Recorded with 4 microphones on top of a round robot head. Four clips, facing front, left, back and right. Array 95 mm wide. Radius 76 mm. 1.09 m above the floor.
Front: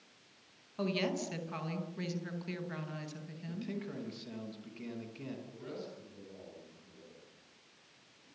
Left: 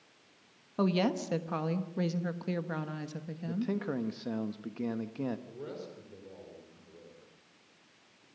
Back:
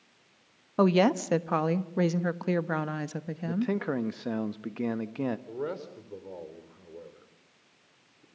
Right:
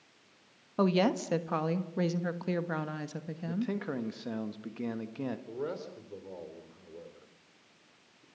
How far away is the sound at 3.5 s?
About 1.3 m.